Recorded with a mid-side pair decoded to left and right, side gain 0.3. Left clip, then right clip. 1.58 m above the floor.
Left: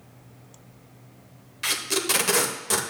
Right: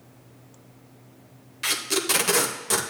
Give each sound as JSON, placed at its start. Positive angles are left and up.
{"t": 1.6, "sound": "tape being pulled", "azimuth_deg": -5, "distance_m": 1.0}